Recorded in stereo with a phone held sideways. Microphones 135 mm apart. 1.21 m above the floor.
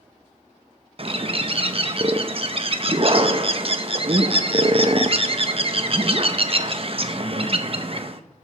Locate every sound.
1.0 s a bird: 45° right (ahead or behind), 0.6 m